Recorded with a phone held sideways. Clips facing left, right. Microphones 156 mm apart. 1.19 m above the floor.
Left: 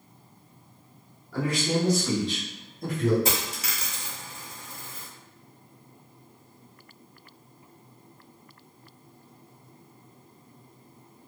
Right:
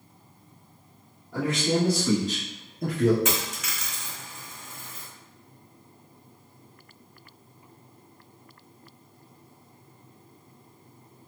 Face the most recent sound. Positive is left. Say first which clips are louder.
# even
turn(degrees=35)  # may be behind; listen again after turning